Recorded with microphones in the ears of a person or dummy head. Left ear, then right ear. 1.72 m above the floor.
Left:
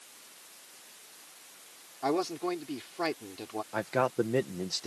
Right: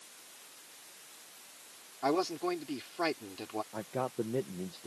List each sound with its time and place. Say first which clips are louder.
2.0 s a man speaking: left 1 dB; 10° right (ahead or behind)
3.7 s a man speaking: left 10 dB; 55° left (ahead or behind)